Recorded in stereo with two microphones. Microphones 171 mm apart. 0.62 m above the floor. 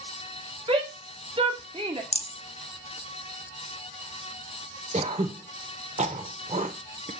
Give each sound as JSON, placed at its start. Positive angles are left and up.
{"t": 0.7, "sound": "a shout", "side_deg": -35, "distance_m": 1.7}
{"t": 2.1, "sound": "a rattle", "side_deg": 40, "distance_m": 0.9}
{"t": 4.9, "sound": "throat clearing", "side_deg": -45, "distance_m": 1.0}